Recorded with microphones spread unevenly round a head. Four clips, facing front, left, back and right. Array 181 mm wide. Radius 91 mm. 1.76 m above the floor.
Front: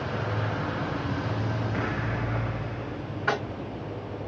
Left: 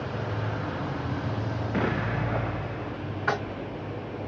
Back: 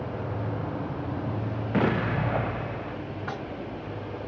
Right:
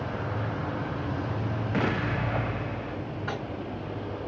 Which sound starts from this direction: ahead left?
Tapping, at 3.3 s.